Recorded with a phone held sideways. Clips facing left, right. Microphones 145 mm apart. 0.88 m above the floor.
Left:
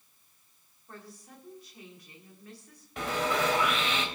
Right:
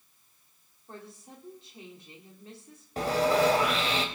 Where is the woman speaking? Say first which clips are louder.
Right 2 dB; 25° right (ahead or behind), 3 m.